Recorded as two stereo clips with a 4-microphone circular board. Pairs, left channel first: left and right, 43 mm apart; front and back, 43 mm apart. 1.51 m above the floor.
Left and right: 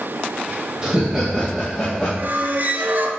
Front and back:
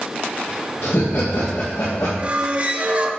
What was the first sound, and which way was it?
Laughter, 15° right.